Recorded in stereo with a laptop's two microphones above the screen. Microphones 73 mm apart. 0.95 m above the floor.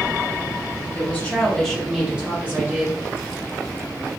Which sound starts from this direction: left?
A woman speaking, at 0.9 s.